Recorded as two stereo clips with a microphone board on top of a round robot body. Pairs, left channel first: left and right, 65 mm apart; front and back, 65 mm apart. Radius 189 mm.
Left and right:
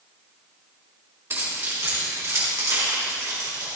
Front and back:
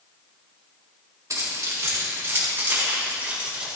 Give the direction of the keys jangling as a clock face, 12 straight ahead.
5 o'clock.